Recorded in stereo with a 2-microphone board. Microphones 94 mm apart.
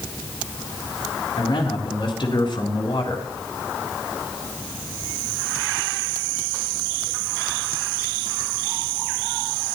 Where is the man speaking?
60° left (ahead or behind), 4 m.